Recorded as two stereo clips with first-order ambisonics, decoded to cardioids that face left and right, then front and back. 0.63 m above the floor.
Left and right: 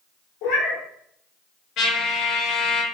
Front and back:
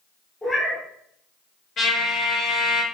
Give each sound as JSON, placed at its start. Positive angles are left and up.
{"t": 0.4, "sound": "a cat meowing", "azimuth_deg": 80, "distance_m": 1.0}
{"t": 1.8, "sound": "a trumpet", "azimuth_deg": 55, "distance_m": 1.1}